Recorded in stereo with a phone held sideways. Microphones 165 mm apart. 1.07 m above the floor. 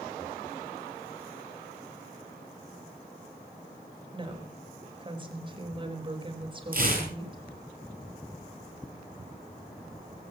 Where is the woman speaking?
30° right (ahead or behind), 4.5 m.